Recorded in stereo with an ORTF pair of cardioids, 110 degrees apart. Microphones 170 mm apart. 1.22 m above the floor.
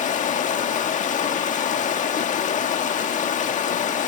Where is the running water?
45° left, 1.6 m.